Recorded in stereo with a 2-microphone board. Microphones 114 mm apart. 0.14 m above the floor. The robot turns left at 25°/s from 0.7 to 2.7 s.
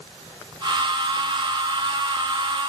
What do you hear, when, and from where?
Only background noise.